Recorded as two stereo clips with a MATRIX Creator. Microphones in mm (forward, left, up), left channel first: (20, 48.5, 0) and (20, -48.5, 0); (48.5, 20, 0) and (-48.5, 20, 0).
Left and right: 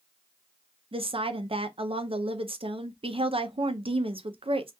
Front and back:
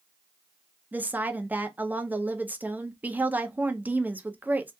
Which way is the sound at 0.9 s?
110° right.